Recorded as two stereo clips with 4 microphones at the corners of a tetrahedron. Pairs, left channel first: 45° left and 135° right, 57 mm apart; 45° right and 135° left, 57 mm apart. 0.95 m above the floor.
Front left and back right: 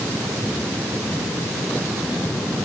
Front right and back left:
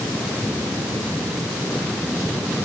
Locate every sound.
Only background noise.